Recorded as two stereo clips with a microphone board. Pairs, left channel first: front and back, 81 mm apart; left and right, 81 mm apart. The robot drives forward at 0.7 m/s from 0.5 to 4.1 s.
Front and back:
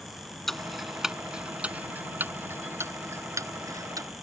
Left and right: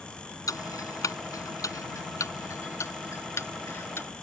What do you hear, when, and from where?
0.5 s ticking: 85° left; by 4.2 s 145° left